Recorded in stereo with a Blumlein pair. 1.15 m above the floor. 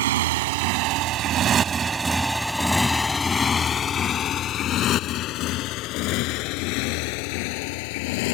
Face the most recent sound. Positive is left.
turn(degrees=50)